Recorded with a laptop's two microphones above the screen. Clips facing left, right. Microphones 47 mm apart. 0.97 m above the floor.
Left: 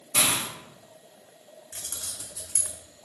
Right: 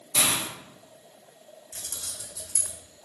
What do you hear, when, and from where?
0.1 s a hiss: 35° left (ahead or behind), 1.2 m
1.7 s keys jangling: 60° left (ahead or behind), 1.4 m